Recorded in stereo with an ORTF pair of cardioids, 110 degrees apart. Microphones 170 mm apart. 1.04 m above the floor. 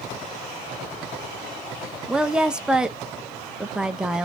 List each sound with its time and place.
2.1 s a woman speaking: 5° right, 0.5 m